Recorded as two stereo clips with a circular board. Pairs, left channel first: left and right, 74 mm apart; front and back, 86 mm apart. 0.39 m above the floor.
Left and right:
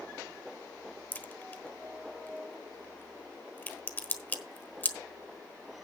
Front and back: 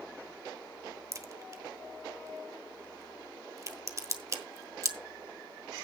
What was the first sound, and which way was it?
A crack, 145° left.